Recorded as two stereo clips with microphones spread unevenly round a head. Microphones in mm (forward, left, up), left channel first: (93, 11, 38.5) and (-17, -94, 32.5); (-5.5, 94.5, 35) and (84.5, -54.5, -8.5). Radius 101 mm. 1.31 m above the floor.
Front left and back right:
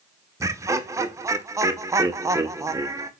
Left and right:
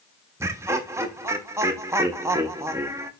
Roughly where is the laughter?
Right.